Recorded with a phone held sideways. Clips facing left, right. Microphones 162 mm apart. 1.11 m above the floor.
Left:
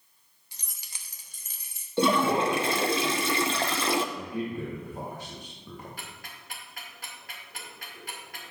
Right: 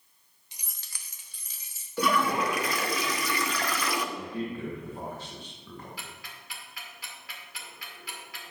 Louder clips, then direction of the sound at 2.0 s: Left 3 dB; 25° left (ahead or behind).